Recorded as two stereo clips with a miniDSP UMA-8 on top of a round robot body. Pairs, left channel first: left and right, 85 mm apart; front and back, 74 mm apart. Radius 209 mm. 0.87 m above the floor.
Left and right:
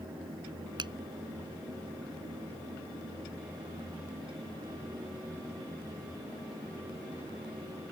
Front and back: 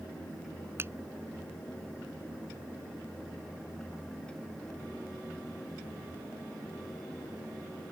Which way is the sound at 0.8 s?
120° right.